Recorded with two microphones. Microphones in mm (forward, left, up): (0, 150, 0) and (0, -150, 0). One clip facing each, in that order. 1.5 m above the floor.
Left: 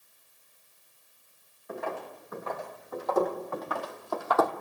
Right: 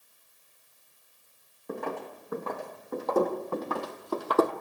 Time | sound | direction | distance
1.7 | footsteps | 55° right (ahead or behind) | 3.5 m